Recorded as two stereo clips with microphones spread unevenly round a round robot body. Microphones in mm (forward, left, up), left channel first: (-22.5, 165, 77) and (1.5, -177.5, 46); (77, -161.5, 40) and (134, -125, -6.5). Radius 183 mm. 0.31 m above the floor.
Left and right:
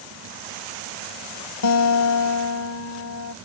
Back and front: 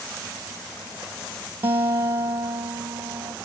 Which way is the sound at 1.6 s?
55° left.